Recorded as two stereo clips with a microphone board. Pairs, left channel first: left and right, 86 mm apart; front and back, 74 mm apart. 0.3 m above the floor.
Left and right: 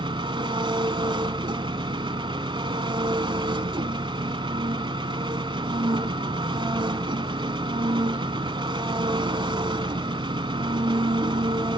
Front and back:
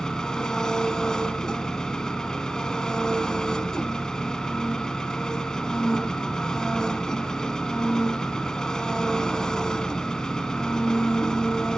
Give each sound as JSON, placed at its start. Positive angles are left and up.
{"t": 0.0, "sound": "an engine running", "azimuth_deg": -80, "distance_m": 1.0}